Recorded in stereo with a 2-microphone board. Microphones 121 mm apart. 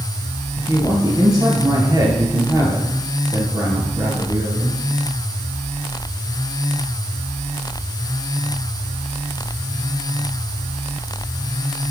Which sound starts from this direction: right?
A man speaking, at 0.6 s.